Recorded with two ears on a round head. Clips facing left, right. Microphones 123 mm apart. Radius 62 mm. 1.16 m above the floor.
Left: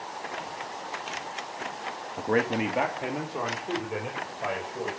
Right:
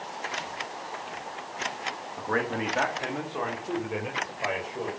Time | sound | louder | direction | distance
2.2 | a man speaking | left 4 dB | 35° left (ahead or behind) | 1.3 m